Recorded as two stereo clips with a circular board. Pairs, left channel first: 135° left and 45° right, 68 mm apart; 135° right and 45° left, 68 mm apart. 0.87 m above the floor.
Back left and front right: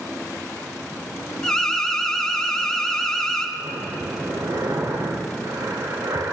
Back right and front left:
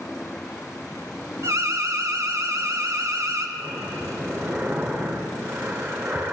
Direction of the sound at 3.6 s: 25° right.